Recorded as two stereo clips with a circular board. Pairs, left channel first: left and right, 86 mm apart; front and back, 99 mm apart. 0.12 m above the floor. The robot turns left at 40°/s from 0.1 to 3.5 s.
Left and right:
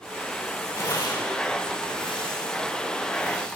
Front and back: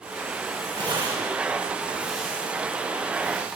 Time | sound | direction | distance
0.8 | tearing paper | 145° left | 9 m